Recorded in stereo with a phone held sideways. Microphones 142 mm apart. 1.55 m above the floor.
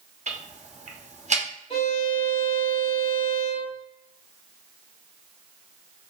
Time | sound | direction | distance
0.3 | ticking | 55° right (ahead or behind) | 0.6 m
1.7 | a violin | 40° left (ahead or behind) | 1.4 m